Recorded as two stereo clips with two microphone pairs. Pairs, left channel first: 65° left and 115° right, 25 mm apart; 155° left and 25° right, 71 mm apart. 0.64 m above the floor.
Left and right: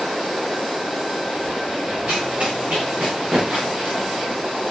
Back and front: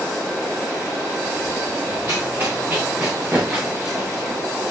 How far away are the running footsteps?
About 4 m.